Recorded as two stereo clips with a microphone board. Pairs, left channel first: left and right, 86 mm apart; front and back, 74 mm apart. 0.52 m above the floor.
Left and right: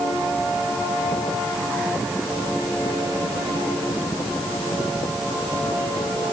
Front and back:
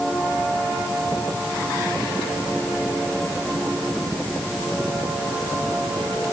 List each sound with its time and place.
Only background noise.